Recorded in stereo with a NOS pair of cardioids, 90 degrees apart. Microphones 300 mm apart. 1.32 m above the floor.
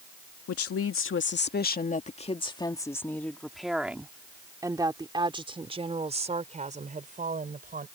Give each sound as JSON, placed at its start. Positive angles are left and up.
{"t": 0.5, "sound": "a woman speaking", "azimuth_deg": 55}